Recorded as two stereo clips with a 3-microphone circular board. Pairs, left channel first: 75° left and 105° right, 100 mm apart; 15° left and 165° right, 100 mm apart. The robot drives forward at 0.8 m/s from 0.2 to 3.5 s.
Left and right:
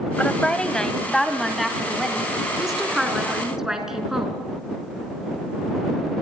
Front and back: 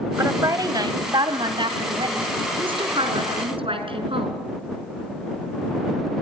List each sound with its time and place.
0.2 s a woman speaking: 145° left, 1.7 m; by 4.3 s 170° left, 4 m